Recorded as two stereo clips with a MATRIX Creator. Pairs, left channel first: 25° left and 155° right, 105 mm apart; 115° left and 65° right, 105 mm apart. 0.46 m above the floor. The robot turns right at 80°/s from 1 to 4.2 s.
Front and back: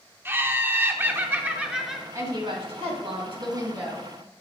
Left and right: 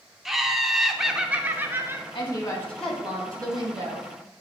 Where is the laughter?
150° right, 0.7 m; by 2.0 s 65° right, 0.7 m.